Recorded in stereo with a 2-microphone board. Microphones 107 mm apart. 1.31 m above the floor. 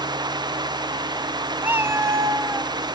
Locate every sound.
1.6 s a cat meowing: 20° right (ahead or behind), 0.6 m; by 2.7 s 25° right (ahead or behind), 0.9 m